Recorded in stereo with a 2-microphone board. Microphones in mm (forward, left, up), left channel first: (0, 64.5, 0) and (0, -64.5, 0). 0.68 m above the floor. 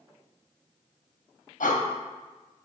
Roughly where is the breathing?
Left.